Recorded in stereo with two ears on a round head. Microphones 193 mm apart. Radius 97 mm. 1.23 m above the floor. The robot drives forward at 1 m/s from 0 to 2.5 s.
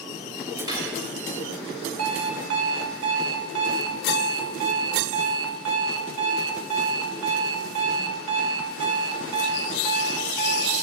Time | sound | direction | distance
0.7 | cutlery clinking | 20° right (ahead or behind) | 6 m
2.0 | an alarm clock | 80° right | 2.5 m